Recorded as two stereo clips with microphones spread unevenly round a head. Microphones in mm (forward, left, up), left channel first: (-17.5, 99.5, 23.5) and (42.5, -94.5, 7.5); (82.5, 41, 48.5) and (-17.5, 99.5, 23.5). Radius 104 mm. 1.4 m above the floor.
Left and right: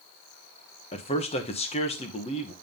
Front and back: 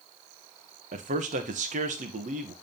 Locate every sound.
0.9 s a man speaking: 170° left, 1.2 m